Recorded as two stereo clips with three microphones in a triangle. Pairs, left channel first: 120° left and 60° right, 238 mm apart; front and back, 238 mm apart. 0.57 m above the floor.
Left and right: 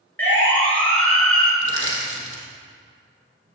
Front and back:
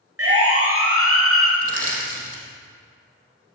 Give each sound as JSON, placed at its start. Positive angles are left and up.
{"t": 0.2, "sound": "a siren", "azimuth_deg": -155, "distance_m": 6.5}
{"t": 1.6, "sound": "crushing", "azimuth_deg": 155, "distance_m": 4.0}